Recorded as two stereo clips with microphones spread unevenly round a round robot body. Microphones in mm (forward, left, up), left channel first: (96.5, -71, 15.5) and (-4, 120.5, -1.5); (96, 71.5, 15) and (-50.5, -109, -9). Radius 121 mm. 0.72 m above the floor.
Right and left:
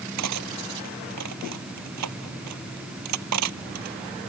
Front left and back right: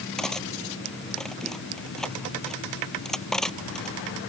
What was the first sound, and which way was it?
Cutlery clinking, 140° left.